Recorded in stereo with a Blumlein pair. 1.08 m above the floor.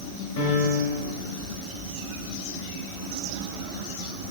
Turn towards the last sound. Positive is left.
turn(degrees=60)